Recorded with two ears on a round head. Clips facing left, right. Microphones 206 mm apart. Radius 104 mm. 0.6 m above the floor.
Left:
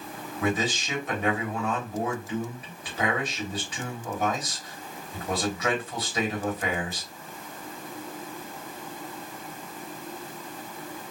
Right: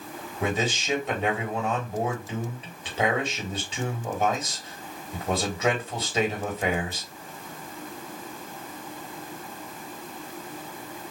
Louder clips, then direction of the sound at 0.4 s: Even; 25° right (ahead or behind).